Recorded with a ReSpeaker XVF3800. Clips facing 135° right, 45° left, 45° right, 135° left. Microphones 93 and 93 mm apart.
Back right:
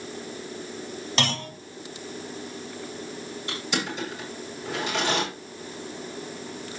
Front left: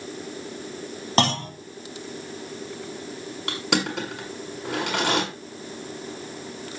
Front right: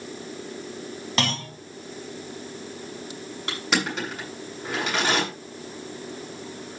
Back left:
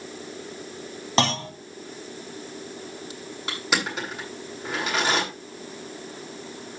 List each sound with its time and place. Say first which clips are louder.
1.2 s a clunk: front left 7 dB, back left 5 dB; 80° left, 1.8 m
3.5 s crushing: front left 5 dB, front right 1 dB; 50° left, 9 m